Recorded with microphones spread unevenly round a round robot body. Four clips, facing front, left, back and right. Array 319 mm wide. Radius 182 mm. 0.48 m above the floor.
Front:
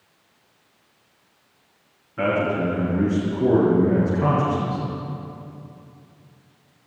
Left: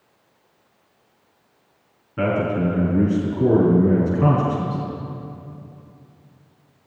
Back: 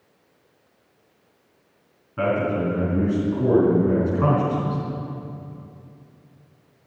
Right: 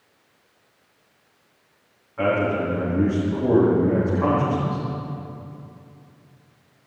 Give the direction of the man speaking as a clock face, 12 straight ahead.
8 o'clock.